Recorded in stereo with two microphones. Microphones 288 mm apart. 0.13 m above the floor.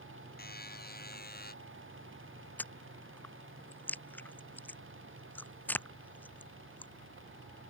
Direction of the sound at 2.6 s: 5° left (ahead or behind).